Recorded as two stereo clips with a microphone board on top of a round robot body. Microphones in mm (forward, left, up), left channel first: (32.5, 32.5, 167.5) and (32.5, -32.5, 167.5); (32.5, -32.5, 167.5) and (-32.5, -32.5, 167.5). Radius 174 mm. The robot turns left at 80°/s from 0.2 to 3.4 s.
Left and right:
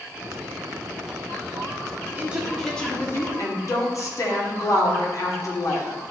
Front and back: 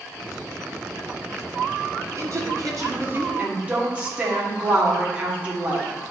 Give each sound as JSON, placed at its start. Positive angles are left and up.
{"t": 2.1, "sound": "a woman speaking", "azimuth_deg": -150, "distance_m": 1.9}